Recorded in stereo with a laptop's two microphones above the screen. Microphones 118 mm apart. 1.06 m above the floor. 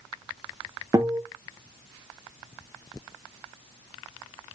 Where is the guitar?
30° right (ahead or behind), 0.6 m.